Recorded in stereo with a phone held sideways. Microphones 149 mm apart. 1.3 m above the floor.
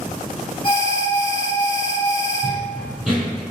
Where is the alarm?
35° left (ahead or behind), 1.7 m.